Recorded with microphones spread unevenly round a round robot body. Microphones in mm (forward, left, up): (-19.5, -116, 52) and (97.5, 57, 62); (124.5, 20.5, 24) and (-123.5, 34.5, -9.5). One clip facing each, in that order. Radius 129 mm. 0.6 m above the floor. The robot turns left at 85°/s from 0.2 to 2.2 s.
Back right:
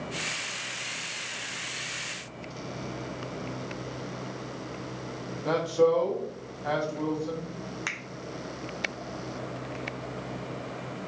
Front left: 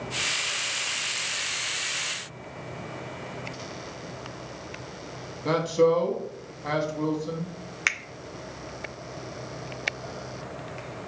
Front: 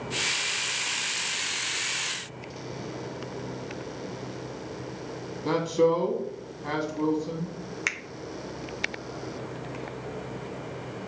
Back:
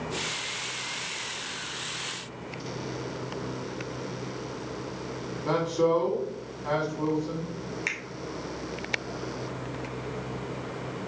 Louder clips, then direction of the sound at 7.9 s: Even, back 1 dB; 45° left.